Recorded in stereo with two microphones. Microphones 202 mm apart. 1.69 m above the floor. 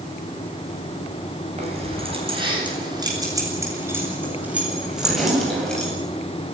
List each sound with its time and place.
1.6 s keys jangling: 30° right (ahead or behind), 8.5 m; by 5.9 s 5° left (ahead or behind), 8.5 m